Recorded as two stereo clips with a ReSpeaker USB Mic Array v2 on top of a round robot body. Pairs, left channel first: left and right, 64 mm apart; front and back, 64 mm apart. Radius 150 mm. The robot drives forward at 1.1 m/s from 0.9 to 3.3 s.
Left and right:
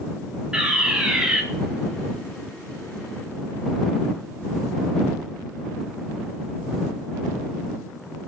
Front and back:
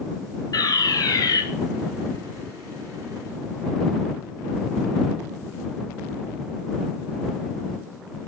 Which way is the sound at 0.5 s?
10° right.